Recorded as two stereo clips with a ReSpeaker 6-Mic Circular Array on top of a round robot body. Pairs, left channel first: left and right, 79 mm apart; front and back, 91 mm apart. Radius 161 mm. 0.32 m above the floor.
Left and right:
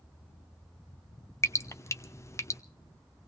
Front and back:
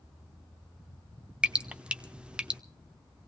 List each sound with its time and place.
1.4 s dripping: 110° left, 1.2 m